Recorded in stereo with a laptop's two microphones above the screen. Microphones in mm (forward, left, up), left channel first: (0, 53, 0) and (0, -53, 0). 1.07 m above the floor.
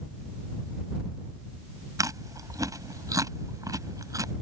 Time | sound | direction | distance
2.0 | chewing | 35° right (ahead or behind) | ?